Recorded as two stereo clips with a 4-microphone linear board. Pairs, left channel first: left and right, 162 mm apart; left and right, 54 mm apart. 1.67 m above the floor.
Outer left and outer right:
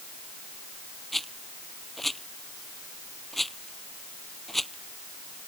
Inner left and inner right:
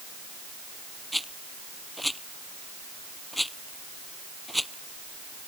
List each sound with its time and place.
1.1 s a rattle: centre (ahead or behind)